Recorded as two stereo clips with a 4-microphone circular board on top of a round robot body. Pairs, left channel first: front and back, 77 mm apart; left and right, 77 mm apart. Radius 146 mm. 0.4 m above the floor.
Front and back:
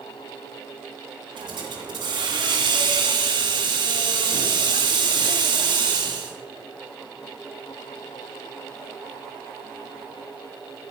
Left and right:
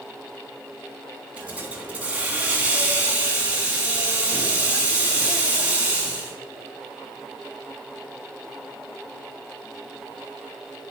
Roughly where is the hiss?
Behind.